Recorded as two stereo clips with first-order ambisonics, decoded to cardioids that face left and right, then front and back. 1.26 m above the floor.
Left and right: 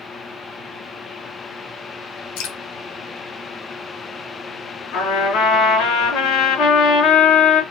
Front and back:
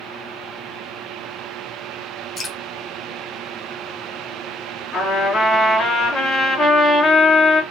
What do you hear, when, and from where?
2.4 s dripping: 70° left, 1.2 m
4.9 s a trumpet: 60° left, 3 m